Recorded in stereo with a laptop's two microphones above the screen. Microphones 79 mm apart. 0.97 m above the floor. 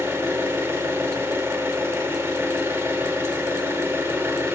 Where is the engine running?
30° right (ahead or behind), 0.9 m.